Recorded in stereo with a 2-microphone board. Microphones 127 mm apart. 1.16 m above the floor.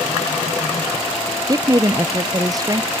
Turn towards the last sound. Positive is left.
turn(degrees=-30)  # may be behind; listen again after turning